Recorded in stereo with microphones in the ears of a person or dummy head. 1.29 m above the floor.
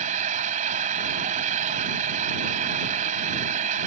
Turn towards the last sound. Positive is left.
turn(degrees=-40)  # may be behind; listen again after turning